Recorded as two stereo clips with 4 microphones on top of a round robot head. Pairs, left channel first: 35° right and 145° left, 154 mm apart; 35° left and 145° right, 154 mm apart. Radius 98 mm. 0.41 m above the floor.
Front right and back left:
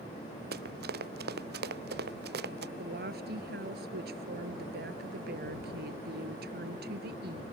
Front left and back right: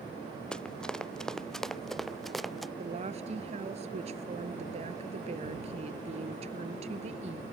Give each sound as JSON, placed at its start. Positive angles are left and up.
{"t": 0.5, "sound": "running footsteps", "azimuth_deg": 120}
{"t": 2.8, "sound": "a woman speaking", "azimuth_deg": 165}